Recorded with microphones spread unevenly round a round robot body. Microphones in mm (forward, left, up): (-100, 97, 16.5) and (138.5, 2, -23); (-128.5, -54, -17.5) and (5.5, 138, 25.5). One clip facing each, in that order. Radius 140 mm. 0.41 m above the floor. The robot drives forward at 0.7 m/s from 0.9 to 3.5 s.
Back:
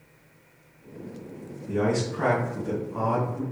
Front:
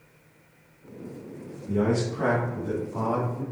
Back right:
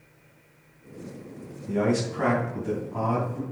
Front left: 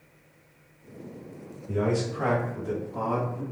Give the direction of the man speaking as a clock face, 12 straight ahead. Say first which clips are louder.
Front 1 dB, back right 2 dB; 4 o'clock.